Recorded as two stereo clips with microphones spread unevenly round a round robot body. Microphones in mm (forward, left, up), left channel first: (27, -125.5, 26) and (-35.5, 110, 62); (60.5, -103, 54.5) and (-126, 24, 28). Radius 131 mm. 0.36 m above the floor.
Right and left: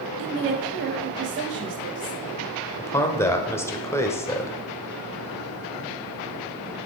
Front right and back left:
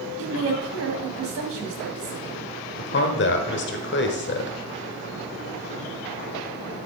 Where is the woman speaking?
150° left, 2 m.